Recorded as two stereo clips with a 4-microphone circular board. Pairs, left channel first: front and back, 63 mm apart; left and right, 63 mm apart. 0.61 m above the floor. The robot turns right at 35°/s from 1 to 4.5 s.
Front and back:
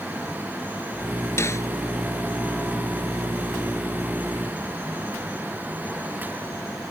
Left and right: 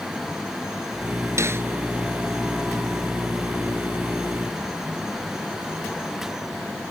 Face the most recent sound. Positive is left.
turn(degrees=65)